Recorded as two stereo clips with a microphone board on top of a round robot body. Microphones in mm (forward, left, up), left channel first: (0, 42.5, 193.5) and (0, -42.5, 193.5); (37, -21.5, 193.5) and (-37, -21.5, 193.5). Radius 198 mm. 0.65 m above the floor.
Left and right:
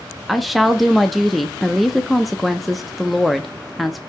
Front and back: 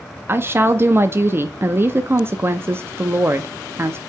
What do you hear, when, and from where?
0.3 s a woman speaking: straight behind, 0.7 m